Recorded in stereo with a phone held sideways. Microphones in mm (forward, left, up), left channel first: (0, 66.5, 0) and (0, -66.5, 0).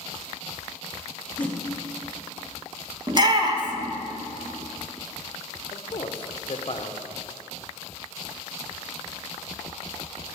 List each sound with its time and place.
1.4 s a whoosh: 10° left (ahead or behind), 1.1 m
3.1 s a shout: 35° right (ahead or behind), 1.5 m
5.7 s a man speaking: 45° left (ahead or behind), 0.9 m